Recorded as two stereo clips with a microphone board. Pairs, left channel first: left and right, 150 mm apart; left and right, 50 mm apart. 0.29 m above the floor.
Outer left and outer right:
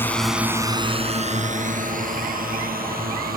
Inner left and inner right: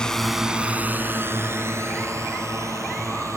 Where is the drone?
15° left (ahead or behind); by 3.4 s 75° right (ahead or behind).